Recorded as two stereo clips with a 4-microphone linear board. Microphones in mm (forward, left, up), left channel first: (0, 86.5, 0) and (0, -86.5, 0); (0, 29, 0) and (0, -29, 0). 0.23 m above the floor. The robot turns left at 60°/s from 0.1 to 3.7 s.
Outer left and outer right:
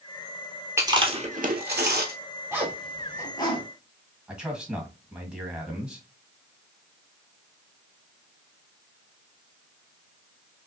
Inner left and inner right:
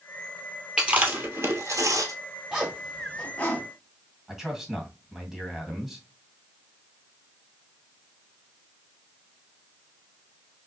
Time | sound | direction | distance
0.8 | chewing | 15° right (ahead or behind) | 1.3 m
2.5 | a zipper | 15° right (ahead or behind) | 1.6 m
4.3 | a man speaking | 5° right (ahead or behind) | 1.8 m